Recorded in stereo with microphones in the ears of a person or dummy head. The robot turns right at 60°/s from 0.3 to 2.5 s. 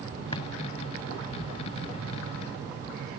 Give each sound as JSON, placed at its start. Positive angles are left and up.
{"t": 0.3, "sound": "a drawer", "side_deg": 30}